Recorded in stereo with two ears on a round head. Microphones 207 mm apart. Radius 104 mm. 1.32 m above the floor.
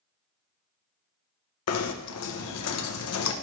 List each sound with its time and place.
1.7 s knocking: 70° left (ahead or behind), 0.7 m